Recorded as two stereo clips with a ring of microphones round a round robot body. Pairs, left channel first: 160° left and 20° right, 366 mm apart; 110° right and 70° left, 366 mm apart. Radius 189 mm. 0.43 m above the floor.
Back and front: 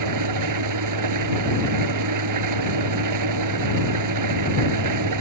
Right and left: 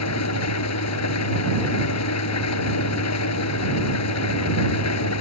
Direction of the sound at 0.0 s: 65° right.